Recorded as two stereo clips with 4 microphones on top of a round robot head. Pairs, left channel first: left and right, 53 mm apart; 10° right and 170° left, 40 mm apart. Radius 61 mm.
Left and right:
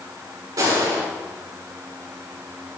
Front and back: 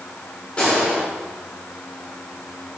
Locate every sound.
0.6 s a gunshot: 80° right, 6 m